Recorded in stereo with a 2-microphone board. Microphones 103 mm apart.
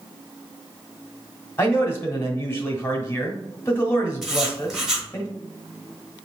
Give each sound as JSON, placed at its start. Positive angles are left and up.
{"t": 1.6, "sound": "a man speaking", "side_deg": 25, "distance_m": 1.1}
{"t": 4.2, "sound": "writing", "side_deg": -5, "distance_m": 1.1}